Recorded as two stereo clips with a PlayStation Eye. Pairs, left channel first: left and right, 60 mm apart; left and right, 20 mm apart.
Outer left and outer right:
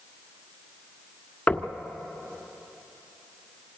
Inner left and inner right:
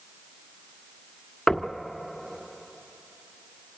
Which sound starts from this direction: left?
Knocking, at 1.5 s.